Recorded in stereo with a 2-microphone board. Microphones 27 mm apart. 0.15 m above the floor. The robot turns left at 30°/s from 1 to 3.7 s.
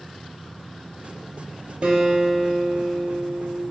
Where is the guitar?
135° right, 0.5 m; by 3.6 s 175° left, 0.5 m.